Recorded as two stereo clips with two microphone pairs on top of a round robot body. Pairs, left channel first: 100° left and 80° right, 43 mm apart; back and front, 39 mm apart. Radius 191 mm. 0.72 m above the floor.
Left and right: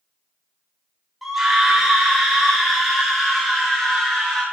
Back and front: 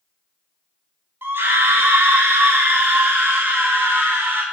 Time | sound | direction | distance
1.2 | a scream | 5° left | 4.5 m